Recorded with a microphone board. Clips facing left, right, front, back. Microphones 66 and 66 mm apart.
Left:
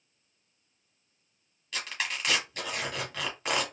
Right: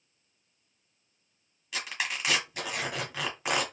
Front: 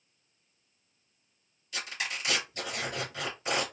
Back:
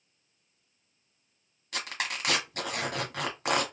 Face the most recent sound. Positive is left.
turn(degrees=-175)